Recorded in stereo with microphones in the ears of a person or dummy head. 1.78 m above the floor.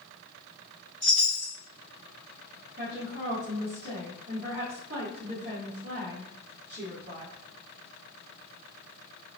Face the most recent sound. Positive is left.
turn(degrees=-30)  # may be behind; listen again after turning